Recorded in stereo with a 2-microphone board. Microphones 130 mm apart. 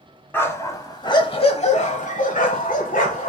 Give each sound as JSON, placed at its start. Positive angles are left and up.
{"t": 0.3, "sound": "a dog barking", "side_deg": 15, "distance_m": 1.1}